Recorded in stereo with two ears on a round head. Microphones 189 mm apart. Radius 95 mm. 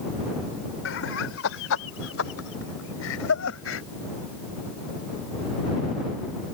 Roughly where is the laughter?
Left.